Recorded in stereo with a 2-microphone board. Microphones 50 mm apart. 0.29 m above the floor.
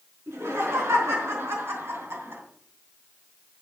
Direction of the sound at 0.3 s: 70° right (ahead or behind).